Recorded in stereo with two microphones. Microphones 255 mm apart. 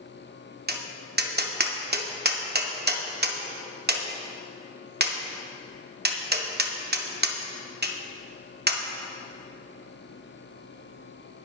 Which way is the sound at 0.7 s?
40° right (ahead or behind).